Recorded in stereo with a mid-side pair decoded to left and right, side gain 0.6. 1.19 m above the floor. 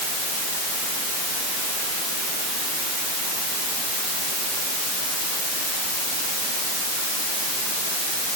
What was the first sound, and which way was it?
Only background noise.